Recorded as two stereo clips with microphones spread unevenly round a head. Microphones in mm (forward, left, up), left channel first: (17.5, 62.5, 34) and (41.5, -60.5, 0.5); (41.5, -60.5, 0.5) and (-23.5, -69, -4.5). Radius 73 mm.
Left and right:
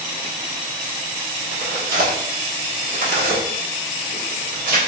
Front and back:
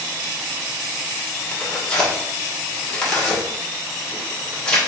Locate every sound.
1.5 s tearing paper: 70° right, 1.5 m